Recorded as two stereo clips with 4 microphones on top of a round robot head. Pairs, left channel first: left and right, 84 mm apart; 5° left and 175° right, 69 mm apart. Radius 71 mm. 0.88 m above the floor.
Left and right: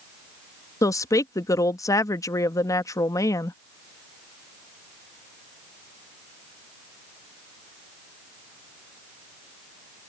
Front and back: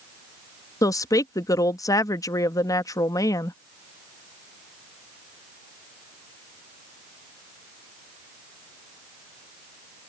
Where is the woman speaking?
40° left.